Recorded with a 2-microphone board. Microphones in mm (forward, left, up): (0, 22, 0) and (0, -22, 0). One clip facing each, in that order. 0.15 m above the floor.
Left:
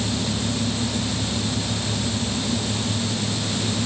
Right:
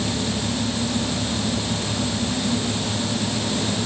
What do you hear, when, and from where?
Only background noise.